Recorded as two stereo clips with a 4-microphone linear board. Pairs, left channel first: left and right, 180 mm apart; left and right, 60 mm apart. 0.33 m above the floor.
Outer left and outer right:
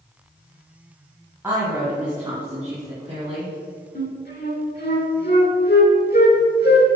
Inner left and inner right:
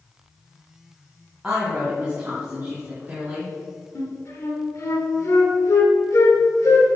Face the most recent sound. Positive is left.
turn(degrees=60)  # may be behind; listen again after turning